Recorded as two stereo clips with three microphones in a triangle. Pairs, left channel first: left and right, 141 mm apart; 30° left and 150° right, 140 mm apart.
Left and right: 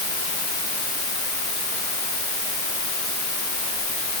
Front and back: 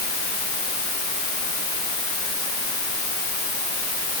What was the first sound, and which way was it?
Only background noise.